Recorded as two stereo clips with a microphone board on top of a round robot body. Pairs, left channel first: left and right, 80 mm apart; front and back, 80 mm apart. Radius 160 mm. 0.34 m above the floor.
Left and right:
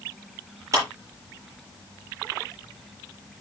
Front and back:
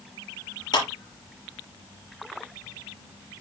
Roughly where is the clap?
Ahead right.